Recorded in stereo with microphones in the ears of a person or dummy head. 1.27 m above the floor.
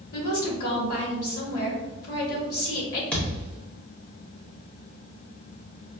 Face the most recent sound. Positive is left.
turn(degrees=10)  # may be behind; listen again after turning